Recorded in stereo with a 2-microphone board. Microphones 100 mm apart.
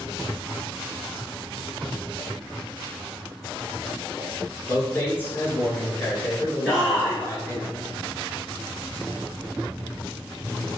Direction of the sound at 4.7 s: 20° left (ahead or behind).